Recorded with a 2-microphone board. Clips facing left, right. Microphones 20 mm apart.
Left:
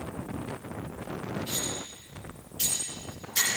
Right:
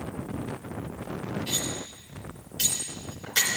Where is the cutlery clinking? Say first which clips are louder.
Right 2 dB; 75° right (ahead or behind), 3.5 m.